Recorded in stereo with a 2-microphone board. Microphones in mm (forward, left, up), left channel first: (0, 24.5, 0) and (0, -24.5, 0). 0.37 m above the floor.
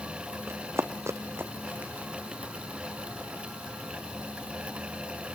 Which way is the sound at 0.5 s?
60° right (ahead or behind).